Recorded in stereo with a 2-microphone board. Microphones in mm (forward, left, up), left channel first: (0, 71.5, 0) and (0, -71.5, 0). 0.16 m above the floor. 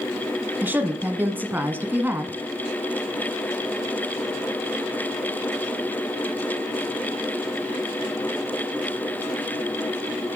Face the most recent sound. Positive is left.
turn(degrees=-10)  # may be behind; listen again after turning